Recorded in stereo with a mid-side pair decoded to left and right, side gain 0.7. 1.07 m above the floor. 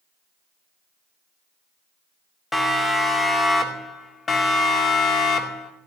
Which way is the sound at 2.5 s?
10° left.